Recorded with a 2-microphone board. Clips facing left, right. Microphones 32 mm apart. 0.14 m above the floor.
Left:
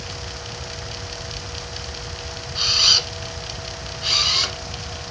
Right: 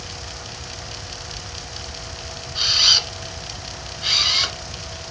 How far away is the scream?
I don't hear a scream.